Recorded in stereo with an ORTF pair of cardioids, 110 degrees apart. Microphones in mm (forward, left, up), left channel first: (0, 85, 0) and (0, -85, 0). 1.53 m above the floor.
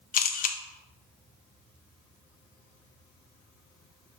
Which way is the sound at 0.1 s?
55° left.